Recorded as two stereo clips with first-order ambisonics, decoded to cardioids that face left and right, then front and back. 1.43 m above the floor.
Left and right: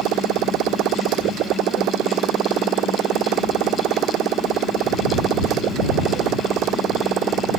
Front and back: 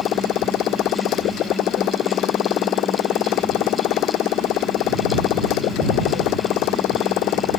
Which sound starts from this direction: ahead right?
A motorcycle, at 0.0 s.